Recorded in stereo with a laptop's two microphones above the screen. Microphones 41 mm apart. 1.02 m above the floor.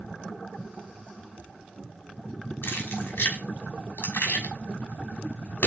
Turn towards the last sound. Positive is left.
turn(degrees=65)  # may be behind; listen again after turning